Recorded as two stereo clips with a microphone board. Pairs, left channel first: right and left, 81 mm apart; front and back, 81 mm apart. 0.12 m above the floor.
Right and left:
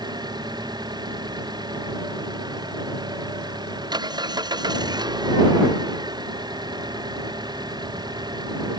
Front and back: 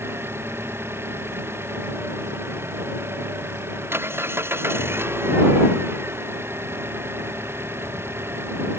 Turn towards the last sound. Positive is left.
turn(degrees=120)